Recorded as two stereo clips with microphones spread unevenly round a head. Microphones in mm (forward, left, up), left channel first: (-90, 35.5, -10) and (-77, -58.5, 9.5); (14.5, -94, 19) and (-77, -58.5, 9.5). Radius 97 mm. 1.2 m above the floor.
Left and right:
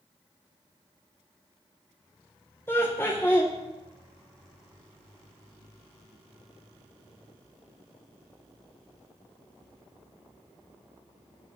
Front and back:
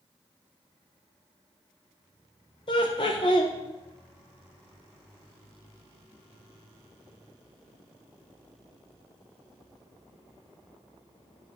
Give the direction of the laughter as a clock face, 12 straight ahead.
11 o'clock.